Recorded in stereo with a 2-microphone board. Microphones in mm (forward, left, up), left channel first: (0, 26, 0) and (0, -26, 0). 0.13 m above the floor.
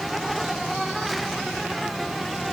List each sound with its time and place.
0.0 s an insect: centre (ahead or behind)